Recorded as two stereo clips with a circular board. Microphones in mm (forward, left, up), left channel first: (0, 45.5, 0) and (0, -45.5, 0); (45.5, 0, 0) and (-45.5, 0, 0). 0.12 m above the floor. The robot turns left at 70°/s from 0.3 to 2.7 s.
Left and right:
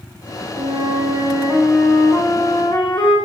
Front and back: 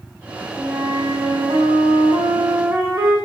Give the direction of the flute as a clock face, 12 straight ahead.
3 o'clock.